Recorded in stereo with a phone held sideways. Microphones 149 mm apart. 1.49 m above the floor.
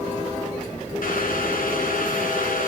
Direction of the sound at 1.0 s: 80° left.